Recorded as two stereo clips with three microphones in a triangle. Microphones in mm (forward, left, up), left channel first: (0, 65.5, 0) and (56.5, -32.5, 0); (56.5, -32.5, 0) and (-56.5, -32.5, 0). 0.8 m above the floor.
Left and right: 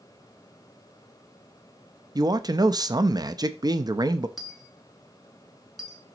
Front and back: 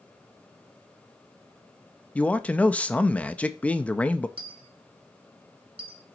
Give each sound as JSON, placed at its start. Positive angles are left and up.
{"t": 2.1, "sound": "a man speaking", "azimuth_deg": -70, "distance_m": 0.5}
{"t": 4.4, "sound": "a dropped coin", "azimuth_deg": -150, "distance_m": 1.6}